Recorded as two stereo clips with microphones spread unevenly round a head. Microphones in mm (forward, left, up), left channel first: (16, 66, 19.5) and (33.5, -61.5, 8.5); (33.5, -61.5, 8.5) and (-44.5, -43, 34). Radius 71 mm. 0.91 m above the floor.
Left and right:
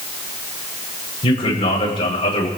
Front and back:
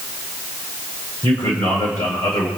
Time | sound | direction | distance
1.2 | a man speaking | 50° left | 8.5 m